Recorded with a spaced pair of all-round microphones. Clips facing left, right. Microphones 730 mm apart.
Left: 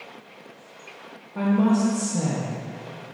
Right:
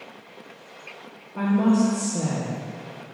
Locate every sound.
1.4 s a woman speaking: 35° left (ahead or behind), 0.7 m